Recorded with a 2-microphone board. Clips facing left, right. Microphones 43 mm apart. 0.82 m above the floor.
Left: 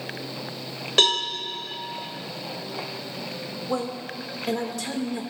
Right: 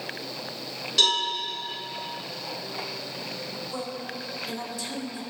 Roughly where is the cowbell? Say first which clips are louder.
Left 2 dB; left.